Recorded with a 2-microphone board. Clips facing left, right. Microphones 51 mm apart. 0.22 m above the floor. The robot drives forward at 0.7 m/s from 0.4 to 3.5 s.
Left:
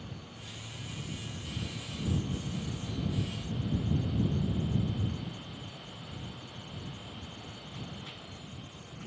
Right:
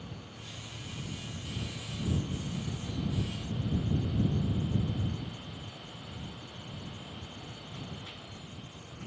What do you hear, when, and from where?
Only background noise.